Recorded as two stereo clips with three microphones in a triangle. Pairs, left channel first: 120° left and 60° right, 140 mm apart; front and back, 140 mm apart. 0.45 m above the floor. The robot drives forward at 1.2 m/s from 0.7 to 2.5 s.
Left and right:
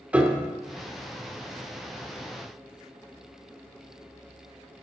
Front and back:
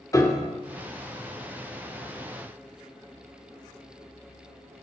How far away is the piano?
About 1.0 m.